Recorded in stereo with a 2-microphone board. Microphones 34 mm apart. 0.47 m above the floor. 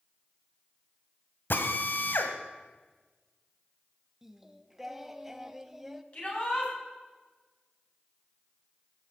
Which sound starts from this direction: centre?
Singing, at 4.2 s.